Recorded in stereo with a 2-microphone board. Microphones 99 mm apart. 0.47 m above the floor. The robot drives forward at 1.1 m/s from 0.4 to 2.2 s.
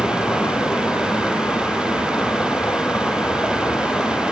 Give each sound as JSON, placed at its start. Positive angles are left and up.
{"t": 0.0, "sound": "a vehicle", "side_deg": 20}